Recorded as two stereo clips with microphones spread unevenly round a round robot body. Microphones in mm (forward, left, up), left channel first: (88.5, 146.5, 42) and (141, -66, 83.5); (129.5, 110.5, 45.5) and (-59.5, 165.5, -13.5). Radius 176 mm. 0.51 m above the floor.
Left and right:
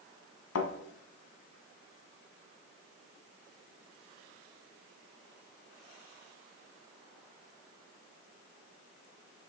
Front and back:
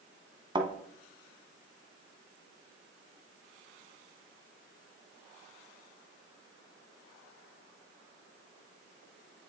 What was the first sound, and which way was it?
A thud, 95° left.